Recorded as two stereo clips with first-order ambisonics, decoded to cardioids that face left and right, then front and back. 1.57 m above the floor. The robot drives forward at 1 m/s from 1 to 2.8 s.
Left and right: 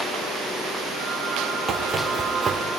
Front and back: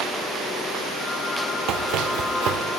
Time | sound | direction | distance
1.7 | running footsteps | 160° right | 3 m